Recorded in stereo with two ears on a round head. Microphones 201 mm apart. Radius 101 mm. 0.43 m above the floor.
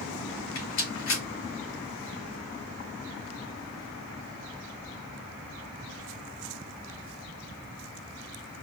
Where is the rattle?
60° left (ahead or behind), 3.5 m.